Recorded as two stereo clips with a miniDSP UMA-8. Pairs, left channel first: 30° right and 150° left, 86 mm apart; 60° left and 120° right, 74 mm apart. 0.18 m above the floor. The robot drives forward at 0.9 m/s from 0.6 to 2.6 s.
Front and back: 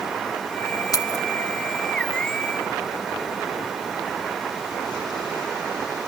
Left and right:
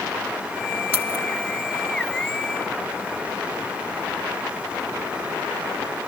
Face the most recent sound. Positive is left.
turn(degrees=-140)